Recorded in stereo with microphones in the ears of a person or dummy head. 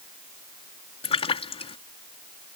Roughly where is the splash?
Left.